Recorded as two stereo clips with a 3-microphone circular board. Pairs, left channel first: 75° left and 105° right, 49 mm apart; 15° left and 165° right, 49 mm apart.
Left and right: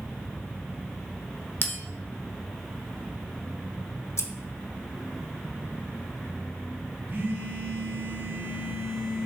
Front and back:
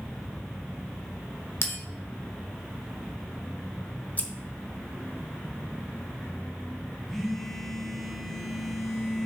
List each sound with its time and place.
1.6 s a bell: 40° left, 1.0 m
4.2 s scissors: 70° left, 0.7 m
7.1 s a phone buzzing: 70° right, 1.3 m